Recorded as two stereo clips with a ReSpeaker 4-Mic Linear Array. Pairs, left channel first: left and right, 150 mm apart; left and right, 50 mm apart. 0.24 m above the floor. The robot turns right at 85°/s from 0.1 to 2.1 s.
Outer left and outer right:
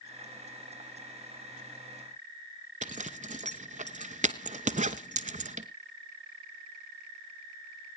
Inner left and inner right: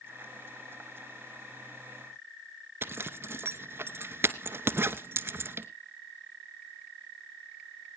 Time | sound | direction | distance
2.8 | a zipper | 50° right (ahead or behind) | 0.7 m